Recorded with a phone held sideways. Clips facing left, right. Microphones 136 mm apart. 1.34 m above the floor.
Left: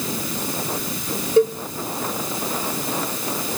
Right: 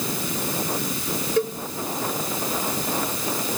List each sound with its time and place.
1.4 s a cowbell: 20° left (ahead or behind), 1.6 m